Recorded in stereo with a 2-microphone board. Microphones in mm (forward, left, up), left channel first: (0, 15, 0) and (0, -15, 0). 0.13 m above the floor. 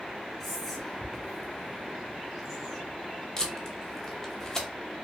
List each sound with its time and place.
0.4 s whispering: centre (ahead or behind), 1.1 m
3.4 s tape being pulled: 20° left (ahead or behind), 0.9 m